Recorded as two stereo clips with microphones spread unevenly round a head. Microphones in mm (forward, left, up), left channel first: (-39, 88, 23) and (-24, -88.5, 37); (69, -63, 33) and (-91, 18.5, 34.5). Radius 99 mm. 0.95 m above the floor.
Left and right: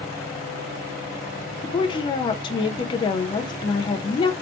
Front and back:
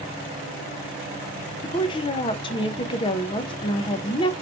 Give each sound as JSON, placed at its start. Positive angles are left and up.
{"t": 1.6, "sound": "a woman speaking", "azimuth_deg": 35, "distance_m": 0.6}